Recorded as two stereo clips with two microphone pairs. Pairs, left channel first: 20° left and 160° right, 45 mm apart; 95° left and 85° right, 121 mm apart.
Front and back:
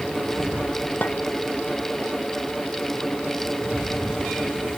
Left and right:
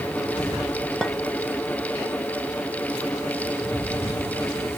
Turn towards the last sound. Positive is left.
turn(degrees=15)